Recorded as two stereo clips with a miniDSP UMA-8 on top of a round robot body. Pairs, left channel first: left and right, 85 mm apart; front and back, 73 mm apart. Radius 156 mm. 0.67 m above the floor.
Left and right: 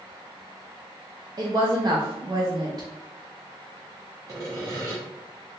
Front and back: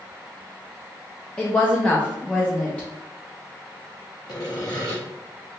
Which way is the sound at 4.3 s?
40° right.